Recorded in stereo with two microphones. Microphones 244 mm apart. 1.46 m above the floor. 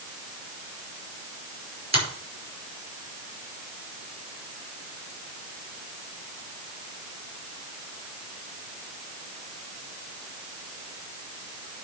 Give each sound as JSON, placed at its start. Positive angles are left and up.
{"t": 1.9, "sound": "a finger snap", "side_deg": -90, "distance_m": 5.0}